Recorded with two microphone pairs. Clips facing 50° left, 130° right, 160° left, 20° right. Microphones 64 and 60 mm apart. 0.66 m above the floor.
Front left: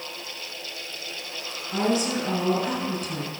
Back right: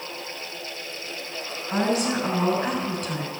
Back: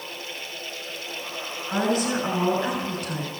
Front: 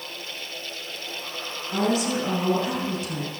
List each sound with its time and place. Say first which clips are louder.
1.7 s a woman speaking: back right 1 dB, even; 170° right, 6.5 m